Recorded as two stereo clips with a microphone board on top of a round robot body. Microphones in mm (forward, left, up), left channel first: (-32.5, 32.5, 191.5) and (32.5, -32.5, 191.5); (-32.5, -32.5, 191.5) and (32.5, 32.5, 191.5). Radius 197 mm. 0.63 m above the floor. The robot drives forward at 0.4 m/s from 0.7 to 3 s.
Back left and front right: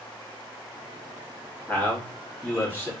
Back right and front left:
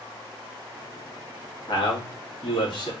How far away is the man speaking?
About 1.8 m.